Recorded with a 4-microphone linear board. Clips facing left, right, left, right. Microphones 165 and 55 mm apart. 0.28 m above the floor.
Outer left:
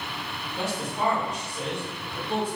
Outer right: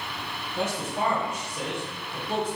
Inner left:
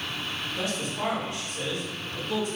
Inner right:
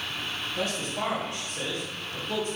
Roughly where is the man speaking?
Right.